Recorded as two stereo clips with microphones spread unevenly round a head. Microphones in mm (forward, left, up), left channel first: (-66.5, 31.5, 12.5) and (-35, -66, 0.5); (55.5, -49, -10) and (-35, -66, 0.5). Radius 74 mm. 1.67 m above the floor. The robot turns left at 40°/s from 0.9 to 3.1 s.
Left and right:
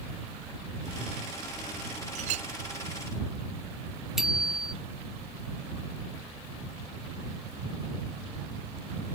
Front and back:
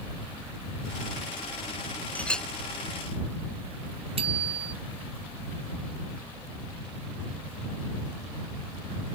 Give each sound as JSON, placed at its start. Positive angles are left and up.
{"t": 2.1, "sound": "a clink", "azimuth_deg": -65}
{"t": 4.2, "sound": "a bicycle bell", "azimuth_deg": -160}